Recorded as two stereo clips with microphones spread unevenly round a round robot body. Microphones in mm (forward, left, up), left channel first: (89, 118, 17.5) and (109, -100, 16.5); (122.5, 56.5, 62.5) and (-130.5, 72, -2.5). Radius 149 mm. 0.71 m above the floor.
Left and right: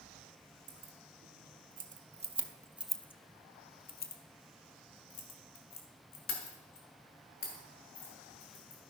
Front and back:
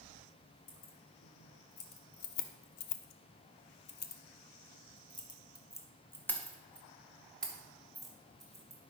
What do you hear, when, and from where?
0.7 s keys jangling: 50° right, 1.6 m; by 8.8 s 90° left, 3.5 m